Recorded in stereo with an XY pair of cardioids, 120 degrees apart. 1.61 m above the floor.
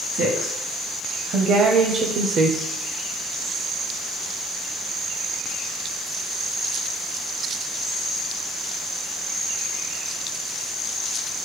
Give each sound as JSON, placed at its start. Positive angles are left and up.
{"t": 0.1, "sound": "a woman speaking", "azimuth_deg": -70, "distance_m": 2.0}